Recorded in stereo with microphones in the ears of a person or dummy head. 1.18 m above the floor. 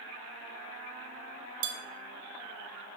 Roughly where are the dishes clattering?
Right.